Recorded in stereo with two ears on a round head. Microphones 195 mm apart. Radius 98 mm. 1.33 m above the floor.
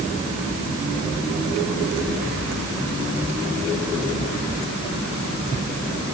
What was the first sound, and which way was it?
Only background noise.